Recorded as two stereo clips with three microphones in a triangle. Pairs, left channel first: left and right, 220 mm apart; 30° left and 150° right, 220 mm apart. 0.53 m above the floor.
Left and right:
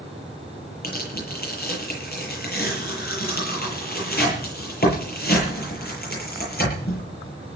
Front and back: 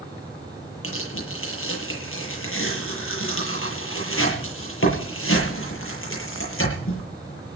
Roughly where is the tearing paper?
Ahead left.